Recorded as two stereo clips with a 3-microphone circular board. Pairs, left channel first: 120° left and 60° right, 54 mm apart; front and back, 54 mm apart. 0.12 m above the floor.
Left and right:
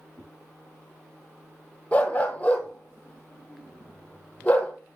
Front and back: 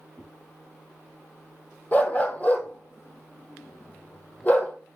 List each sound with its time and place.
0.1 s a whoosh: 75° right, 3.5 m
1.9 s a dog barking: 55° left, 1.2 m